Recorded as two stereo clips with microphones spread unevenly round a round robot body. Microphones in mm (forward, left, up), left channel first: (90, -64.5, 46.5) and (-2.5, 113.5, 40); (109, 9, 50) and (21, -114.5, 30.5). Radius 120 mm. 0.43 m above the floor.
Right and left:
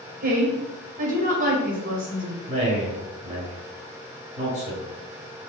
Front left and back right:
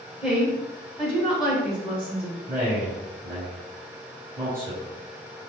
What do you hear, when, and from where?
0.2 s a woman speaking: 155° left, 1.4 m
2.5 s a man speaking: 165° left, 1.9 m